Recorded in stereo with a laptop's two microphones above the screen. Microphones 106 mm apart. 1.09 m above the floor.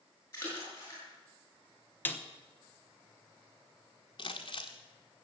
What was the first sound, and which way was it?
A splash, 25° left (ahead or behind).